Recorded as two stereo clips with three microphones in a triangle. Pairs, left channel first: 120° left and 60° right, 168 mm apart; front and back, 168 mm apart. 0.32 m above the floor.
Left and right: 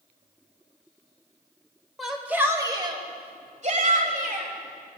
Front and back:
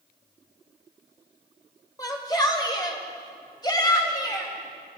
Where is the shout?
30° left, 1.3 m; by 4.5 s 65° right, 2 m.